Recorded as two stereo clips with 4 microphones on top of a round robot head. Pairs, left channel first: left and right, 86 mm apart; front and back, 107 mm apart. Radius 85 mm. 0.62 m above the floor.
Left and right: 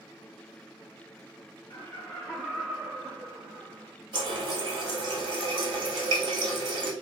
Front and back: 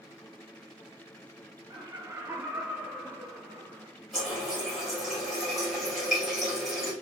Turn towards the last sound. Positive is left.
turn(degrees=-90)